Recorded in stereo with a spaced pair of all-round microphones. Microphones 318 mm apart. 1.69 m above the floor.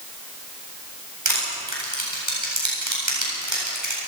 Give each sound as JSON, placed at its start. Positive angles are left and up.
{"t": 1.2, "sound": "crushing", "side_deg": -70, "distance_m": 8.5}